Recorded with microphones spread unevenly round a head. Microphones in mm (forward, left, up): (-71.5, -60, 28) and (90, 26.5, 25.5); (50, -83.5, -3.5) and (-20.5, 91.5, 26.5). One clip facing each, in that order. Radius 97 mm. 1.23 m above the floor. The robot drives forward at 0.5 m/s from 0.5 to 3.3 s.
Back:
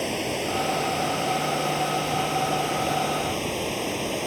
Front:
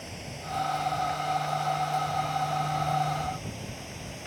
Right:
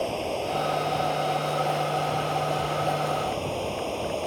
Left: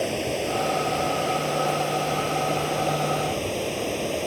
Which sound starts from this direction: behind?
Running water, at 0.0 s.